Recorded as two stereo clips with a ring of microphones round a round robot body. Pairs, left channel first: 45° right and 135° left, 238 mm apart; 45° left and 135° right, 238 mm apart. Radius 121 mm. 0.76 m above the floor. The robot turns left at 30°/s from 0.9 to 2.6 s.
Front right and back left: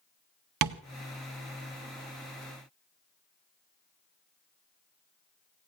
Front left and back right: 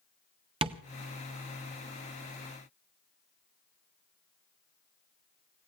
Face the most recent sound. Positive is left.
turn(degrees=105)